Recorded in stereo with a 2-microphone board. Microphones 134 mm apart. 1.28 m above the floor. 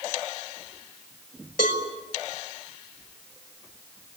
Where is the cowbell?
85° left, 5 m.